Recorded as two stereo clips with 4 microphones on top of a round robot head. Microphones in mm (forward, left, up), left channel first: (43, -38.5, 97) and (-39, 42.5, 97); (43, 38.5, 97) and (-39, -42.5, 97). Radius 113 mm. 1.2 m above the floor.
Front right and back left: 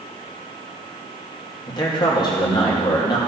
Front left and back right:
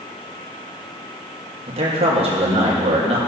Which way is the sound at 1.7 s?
100° right.